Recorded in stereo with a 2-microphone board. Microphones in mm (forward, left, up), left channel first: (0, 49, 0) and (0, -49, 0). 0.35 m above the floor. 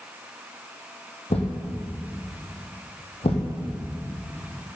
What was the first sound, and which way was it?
A thud, 75° left (ahead or behind).